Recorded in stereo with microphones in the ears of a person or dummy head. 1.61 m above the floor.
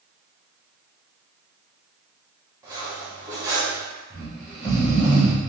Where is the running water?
No running water in this recording.